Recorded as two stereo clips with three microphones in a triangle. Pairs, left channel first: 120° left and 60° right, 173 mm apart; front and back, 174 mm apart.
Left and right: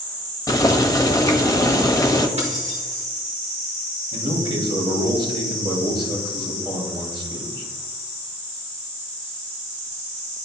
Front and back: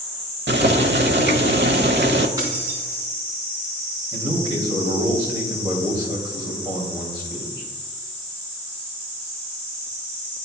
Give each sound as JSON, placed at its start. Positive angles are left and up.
{"t": 0.5, "sound": "boiling", "azimuth_deg": -170, "distance_m": 0.8}
{"t": 2.4, "sound": "keys jangling", "azimuth_deg": -110, "distance_m": 3.5}
{"t": 4.1, "sound": "a man speaking", "azimuth_deg": -115, "distance_m": 3.0}